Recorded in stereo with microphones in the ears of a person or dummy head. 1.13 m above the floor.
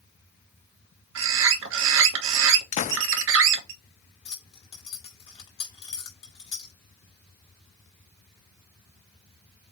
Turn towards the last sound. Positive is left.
turn(degrees=30)  # may be behind; listen again after turning